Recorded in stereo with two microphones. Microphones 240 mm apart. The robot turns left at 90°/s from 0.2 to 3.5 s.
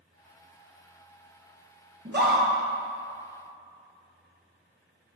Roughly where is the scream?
Ahead right.